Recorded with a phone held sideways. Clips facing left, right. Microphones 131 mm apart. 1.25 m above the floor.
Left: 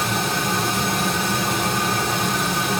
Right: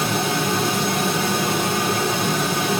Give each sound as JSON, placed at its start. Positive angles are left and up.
{"t": 0.0, "sound": "a fan", "side_deg": 0, "distance_m": 1.2}